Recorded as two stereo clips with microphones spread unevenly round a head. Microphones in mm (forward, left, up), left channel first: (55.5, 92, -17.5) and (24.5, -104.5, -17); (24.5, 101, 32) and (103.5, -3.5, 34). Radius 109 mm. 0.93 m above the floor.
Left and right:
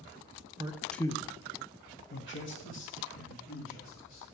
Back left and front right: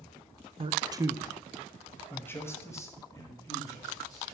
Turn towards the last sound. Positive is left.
turn(degrees=65)